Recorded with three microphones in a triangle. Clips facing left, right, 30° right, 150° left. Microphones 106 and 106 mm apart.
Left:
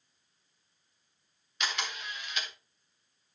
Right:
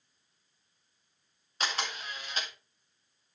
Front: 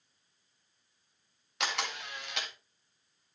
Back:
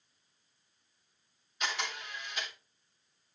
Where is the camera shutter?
35° right, 1.9 m.